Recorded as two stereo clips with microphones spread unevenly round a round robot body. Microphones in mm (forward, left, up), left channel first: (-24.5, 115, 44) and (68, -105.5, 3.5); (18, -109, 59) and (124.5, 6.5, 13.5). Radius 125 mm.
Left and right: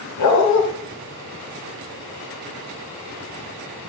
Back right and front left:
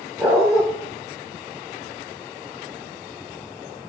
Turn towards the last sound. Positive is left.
turn(degrees=130)